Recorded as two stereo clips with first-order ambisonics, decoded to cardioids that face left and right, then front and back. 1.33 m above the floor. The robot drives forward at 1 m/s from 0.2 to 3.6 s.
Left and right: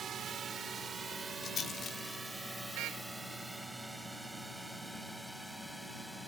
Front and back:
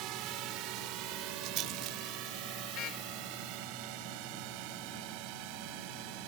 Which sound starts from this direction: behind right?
A drone, at 0.0 s.